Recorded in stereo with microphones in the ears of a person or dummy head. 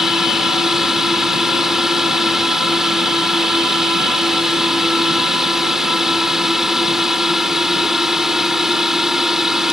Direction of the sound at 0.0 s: Centre (ahead or behind).